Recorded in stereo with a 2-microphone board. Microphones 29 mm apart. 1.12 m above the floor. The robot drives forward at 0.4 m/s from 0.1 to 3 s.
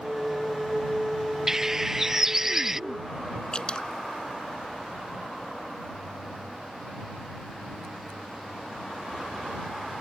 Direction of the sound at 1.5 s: 15° right (ahead or behind).